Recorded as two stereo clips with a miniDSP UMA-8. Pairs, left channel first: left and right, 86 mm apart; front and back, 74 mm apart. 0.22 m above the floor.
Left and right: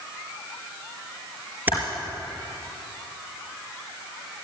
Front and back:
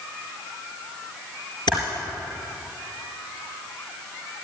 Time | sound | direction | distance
1.7 | typing on a keyboard | 20° right | 4 m